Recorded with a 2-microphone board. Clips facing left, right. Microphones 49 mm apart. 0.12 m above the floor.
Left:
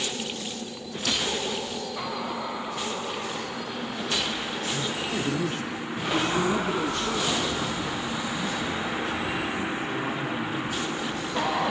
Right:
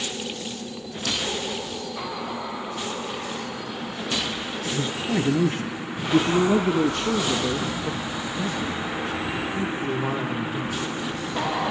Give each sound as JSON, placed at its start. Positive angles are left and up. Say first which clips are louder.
{"t": 4.6, "sound": "a man speaking", "louder": "right 5 dB", "side_deg": -30, "distance_m": 2.5}